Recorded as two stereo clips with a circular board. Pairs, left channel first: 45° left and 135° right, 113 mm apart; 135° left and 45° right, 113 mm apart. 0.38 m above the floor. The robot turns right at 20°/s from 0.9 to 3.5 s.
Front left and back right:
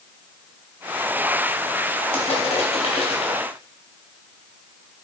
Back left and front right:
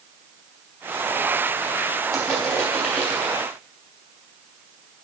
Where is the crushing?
40° left, 2.5 m; by 3.4 s 65° left, 2.5 m.